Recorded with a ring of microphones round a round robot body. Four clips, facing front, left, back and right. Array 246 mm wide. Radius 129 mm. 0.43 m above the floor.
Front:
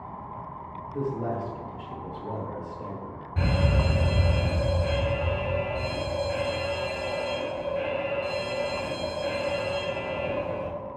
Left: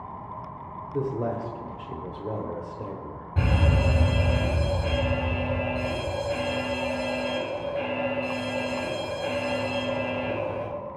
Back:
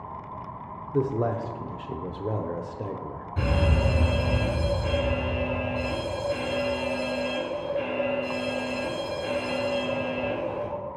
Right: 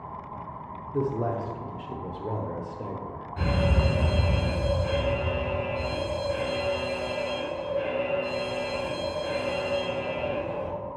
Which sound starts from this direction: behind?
A man speaking, at 0.9 s.